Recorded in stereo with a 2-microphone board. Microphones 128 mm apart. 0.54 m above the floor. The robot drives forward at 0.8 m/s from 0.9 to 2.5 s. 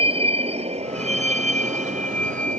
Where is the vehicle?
45° right (ahead or behind); by 2.6 s 80° right.